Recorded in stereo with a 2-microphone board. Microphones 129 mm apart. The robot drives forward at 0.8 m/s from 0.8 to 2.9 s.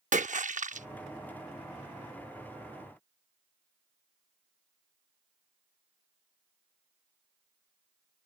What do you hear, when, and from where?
0.1 s a splash: 75° right (ahead or behind); by 0.9 s 70° right (ahead or behind)